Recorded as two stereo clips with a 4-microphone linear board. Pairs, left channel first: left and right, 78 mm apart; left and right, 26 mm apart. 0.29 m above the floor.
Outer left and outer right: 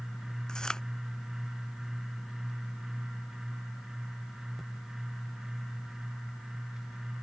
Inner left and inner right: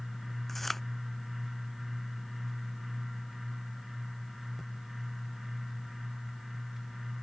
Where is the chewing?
10° left (ahead or behind).